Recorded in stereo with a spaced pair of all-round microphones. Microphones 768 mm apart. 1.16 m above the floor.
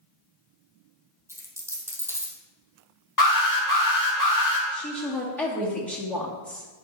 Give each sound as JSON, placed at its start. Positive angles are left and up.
{"t": 1.3, "sound": "a dropped coin", "side_deg": -5, "distance_m": 2.0}
{"t": 3.2, "sound": "an alarm", "side_deg": 25, "distance_m": 2.5}
{"t": 4.7, "sound": "a woman speaking", "side_deg": 0, "distance_m": 1.9}